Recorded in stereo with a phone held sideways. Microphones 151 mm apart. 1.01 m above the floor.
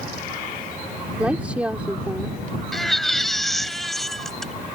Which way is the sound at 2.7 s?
Centre (ahead or behind).